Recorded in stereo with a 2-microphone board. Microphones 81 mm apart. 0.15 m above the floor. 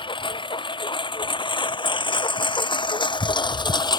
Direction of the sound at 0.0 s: 85° left.